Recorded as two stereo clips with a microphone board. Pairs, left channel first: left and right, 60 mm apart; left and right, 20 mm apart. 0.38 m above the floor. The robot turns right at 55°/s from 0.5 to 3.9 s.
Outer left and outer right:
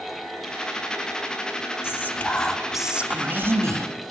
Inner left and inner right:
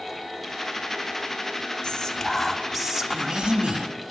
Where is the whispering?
135° left, 2.5 m; by 3.9 s 115° right, 2.5 m.